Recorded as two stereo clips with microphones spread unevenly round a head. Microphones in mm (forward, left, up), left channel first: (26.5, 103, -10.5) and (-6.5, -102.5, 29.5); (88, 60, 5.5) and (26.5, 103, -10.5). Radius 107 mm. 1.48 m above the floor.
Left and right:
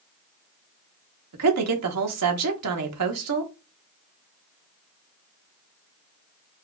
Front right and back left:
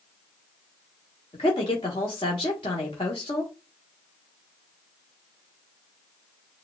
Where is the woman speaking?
85° right, 1.0 m.